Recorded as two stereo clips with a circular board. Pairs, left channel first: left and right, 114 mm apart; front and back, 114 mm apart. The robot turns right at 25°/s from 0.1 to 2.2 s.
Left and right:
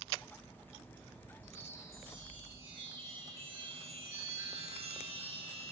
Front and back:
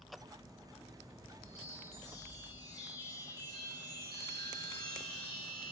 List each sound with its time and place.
1.4 s a chime: 75° right, 4.5 m; by 5.7 s 55° right, 4.5 m